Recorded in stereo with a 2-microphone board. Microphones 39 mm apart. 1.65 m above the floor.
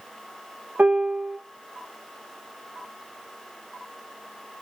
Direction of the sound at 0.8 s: 40° right (ahead or behind).